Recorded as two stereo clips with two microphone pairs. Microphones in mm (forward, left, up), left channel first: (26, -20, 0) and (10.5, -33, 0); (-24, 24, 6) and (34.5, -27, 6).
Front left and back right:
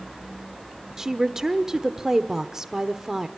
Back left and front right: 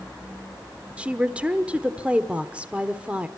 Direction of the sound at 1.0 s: 95° right.